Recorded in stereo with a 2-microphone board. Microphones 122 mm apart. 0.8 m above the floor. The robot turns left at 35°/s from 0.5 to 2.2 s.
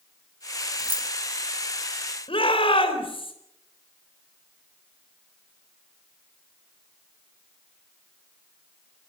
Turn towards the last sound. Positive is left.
turn(degrees=45)  # may be behind; listen again after turning